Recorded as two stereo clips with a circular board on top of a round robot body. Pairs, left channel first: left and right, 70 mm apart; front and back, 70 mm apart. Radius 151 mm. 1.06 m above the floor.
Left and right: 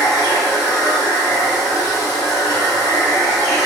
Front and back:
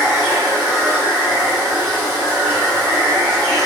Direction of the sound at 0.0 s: 115° left.